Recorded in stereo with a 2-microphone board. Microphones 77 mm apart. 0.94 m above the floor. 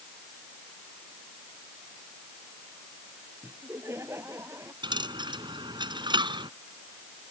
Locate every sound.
3.4 s laughter: 35° right (ahead or behind)
4.8 s a dropped coin: 75° right (ahead or behind)